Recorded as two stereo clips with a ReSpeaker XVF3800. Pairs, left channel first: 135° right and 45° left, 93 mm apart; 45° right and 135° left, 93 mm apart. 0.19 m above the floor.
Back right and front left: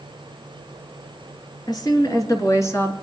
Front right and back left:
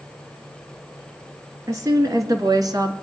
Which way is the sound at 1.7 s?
175° right.